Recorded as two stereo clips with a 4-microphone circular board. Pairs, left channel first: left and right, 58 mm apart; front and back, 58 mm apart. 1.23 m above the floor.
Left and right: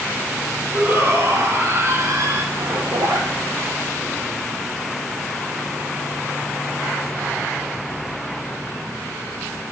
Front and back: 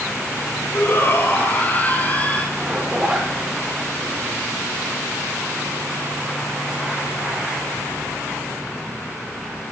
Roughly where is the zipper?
Right.